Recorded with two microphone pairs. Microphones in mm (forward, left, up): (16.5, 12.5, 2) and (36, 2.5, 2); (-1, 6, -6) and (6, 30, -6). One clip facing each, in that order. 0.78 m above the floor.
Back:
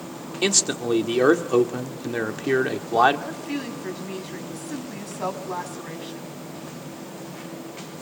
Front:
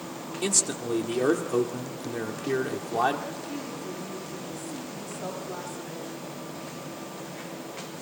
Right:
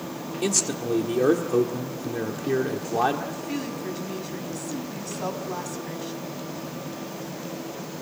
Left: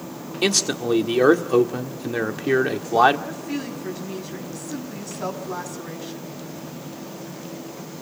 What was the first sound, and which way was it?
A man speaking, 100° left.